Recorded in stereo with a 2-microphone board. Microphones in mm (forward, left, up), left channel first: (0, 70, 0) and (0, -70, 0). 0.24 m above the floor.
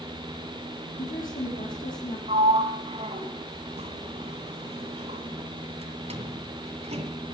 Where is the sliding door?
50° right (ahead or behind), 2.5 m.